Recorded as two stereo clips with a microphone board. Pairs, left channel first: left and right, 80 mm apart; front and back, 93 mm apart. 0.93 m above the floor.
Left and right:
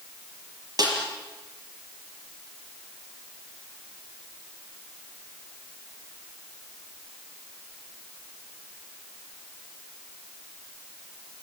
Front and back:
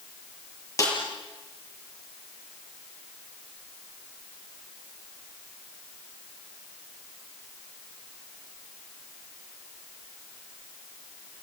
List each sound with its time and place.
0.8 s a snare drum: 55° right, 6 m